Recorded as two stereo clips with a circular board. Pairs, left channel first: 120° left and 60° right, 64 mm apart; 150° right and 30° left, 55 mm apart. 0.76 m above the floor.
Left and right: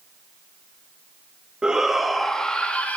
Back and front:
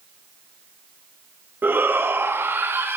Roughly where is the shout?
Ahead.